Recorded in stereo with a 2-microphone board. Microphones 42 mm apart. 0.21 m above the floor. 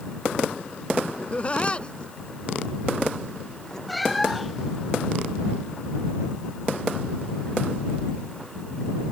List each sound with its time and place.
1.2 s laughter: 35° left (ahead or behind); by 3.8 s 15° left (ahead or behind)
3.9 s a cat meowing: centre (ahead or behind)